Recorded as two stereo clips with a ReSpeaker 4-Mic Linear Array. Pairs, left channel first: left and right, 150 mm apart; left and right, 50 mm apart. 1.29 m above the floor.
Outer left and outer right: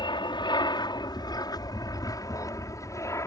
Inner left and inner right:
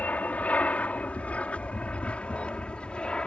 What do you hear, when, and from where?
0.0 s an aircraft: 30° left (ahead or behind); by 3.3 s 20° left (ahead or behind)